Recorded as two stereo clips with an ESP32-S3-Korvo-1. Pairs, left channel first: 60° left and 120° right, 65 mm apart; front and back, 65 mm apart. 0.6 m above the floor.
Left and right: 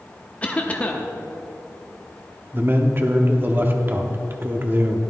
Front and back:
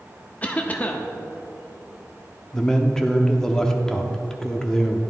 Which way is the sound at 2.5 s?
80° right.